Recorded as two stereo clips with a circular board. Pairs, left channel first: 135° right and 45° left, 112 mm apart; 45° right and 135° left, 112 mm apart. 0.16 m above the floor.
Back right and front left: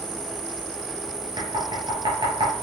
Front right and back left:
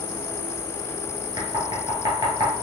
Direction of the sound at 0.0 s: 80° right.